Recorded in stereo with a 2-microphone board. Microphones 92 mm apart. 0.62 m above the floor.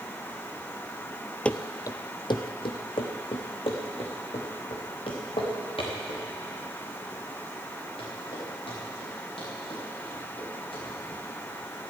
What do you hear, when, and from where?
1.4 s running footsteps: 10° left (ahead or behind), 0.6 m; by 11.2 s 85° left, 10.5 m